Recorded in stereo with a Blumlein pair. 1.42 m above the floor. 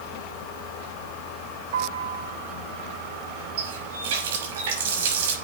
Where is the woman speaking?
I don't hear a woman speaking.